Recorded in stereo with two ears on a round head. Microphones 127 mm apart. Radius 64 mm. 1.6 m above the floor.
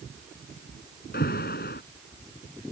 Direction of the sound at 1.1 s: 65° left (ahead or behind).